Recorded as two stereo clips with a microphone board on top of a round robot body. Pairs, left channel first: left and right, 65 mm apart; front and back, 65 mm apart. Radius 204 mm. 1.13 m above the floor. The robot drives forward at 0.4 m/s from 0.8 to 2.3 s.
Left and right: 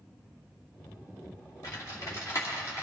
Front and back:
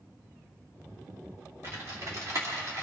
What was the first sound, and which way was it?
Typing on a keyboard, 125° left.